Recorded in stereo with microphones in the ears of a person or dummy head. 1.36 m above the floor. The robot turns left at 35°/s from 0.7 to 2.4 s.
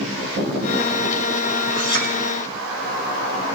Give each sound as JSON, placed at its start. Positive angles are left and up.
{"t": 1.8, "sound": "a clink", "side_deg": 75, "distance_m": 2.5}